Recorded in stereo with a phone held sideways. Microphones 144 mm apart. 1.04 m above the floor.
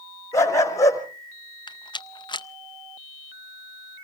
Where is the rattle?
30° left (ahead or behind), 0.5 m.